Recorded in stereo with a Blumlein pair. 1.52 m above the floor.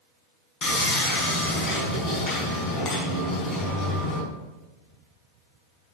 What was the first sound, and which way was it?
Sawing, 25° left.